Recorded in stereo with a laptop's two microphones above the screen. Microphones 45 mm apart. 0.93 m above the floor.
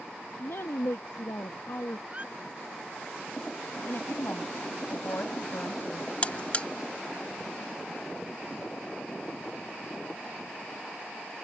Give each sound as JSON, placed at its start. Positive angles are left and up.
{"t": 0.4, "sound": "a woman speaking", "side_deg": 70}
{"t": 2.1, "sound": "a squeak", "side_deg": -30}
{"t": 3.9, "sound": "a woman speaking", "side_deg": 50}
{"t": 6.2, "sound": "a buzzer", "side_deg": 30}